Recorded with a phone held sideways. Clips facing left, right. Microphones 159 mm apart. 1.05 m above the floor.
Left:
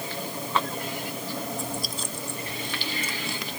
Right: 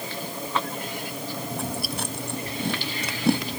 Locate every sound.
1.5 s chewing: 70° right (ahead or behind)